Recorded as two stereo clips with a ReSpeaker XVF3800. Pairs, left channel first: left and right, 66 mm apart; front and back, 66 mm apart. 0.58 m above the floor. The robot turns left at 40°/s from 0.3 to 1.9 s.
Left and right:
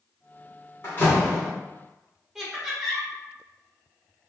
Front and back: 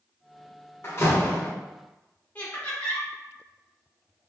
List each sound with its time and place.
0.8 s a door slam: 45° left, 1.3 m; by 1.5 s 20° left, 1.3 m
2.4 s laughter: 15° right, 1.1 m